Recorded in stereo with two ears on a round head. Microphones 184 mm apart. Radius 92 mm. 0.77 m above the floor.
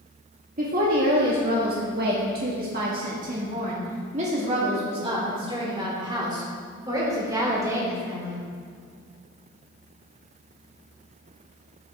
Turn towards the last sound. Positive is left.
turn(degrees=-15)  # may be behind; listen again after turning